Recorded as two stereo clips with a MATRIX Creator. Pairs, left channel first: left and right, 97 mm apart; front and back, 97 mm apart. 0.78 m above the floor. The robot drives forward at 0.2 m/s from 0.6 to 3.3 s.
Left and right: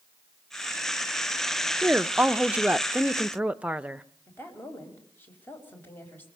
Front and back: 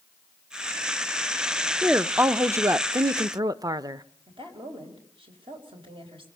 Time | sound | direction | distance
1.8 | a woman speaking | 135° right | 0.5 m
4.3 | a woman speaking | 160° left | 4.5 m